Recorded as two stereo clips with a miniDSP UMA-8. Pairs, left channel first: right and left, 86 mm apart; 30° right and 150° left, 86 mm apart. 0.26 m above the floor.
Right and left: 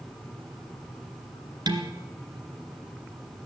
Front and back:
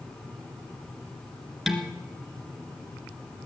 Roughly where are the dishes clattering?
Ahead left.